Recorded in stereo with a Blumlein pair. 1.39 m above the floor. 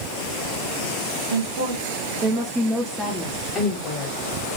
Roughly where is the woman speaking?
Ahead right.